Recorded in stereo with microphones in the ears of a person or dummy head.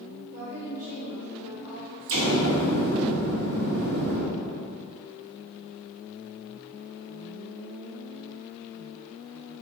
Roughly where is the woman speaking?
Right.